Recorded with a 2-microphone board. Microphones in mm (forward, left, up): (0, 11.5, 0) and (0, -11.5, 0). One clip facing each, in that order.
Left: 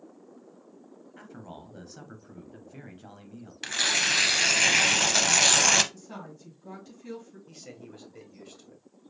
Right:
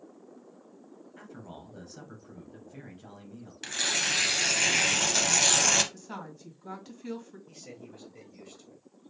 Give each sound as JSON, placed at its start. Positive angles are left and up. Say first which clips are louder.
{"t": 1.2, "sound": "a man speaking", "louder": "left 2 dB", "side_deg": 10, "distance_m": 1.2}
{"t": 3.6, "sound": "tearing paper", "louder": "left 4 dB", "side_deg": 20, "distance_m": 0.7}
{"t": 5.9, "sound": "a woman speaking", "louder": "right 1 dB", "side_deg": -30, "distance_m": 2.0}
{"t": 7.5, "sound": "a man speaking", "louder": "left 1 dB", "side_deg": 20, "distance_m": 1.6}